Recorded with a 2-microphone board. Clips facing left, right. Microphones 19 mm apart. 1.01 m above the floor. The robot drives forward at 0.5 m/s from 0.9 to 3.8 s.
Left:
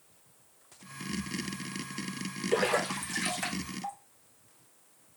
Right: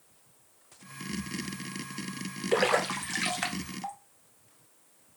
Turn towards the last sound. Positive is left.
turn(degrees=-20)  # may be behind; listen again after turning